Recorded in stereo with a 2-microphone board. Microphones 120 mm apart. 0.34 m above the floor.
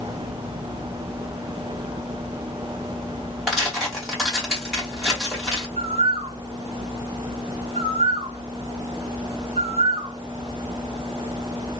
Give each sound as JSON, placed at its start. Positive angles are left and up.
{"t": 3.5, "sound": "tearing paper", "side_deg": 0, "distance_m": 1.5}
{"t": 5.8, "sound": "a bird", "side_deg": -55, "distance_m": 0.7}